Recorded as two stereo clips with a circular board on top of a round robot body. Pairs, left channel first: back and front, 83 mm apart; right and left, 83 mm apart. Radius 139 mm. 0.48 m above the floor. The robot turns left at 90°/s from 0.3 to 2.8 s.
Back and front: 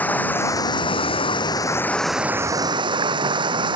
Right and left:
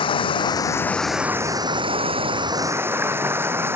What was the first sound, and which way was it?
Running water, 110° right.